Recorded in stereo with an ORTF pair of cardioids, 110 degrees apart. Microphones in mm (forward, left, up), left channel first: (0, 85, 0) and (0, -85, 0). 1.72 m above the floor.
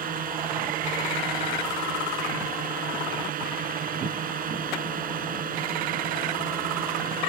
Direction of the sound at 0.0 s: 55° right.